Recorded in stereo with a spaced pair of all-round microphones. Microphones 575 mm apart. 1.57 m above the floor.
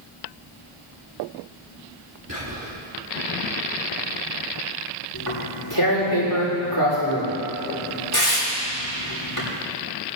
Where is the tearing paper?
40° left (ahead or behind), 6 m.